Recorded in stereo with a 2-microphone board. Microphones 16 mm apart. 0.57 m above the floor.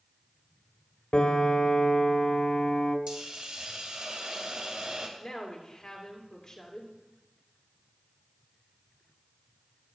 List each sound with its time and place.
1.1 s a piano: 75° left (ahead or behind), 0.8 m
3.1 s a hiss: 65° right (ahead or behind), 1.7 m
5.2 s a woman speaking: 40° left (ahead or behind), 1.9 m